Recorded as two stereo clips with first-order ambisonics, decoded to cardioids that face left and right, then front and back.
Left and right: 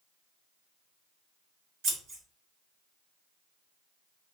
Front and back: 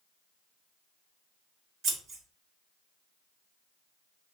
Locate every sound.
1.8 s scissors: 125° right, 1.2 m